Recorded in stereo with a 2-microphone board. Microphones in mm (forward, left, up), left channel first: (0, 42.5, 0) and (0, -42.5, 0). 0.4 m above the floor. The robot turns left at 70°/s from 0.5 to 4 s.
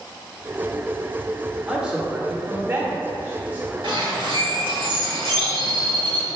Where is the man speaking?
5° right (ahead or behind), 0.9 m; by 3.7 s 10° right (ahead or behind), 0.9 m.